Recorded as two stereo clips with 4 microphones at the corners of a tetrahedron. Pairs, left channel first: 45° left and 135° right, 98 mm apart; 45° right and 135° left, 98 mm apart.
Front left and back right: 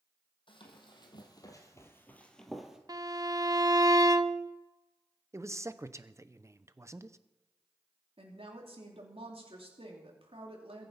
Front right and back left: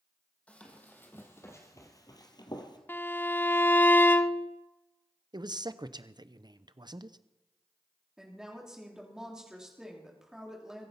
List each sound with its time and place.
0.5 s running footsteps: 30° left, 3.5 m; by 2.8 s 55° right, 2.5 m
2.9 s a violin: 110° right, 0.7 m
5.3 s a man speaking: 170° left, 0.8 m
8.2 s a woman speaking: 140° right, 3 m